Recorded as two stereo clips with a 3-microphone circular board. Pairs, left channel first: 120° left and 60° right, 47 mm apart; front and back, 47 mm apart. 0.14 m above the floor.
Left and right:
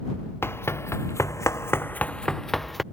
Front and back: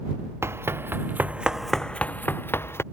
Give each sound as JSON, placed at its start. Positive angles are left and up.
{"t": 0.4, "sound": "running footsteps", "azimuth_deg": 155}